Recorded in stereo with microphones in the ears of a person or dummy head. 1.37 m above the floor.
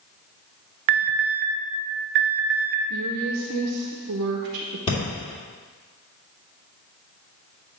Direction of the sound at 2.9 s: 55° right (ahead or behind).